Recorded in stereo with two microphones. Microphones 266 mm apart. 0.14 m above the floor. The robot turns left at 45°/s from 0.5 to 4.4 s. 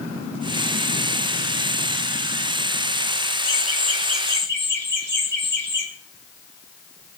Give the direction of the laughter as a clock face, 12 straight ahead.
3 o'clock.